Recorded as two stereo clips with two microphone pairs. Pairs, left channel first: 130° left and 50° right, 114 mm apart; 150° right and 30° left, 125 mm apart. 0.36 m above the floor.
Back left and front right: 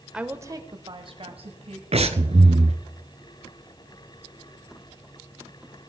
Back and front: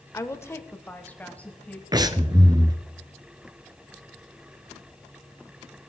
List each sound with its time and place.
0.1 s a woman speaking: 125° right, 0.9 m; by 1.8 s 70° right, 2.5 m
1.9 s breathing: 20° right, 0.9 m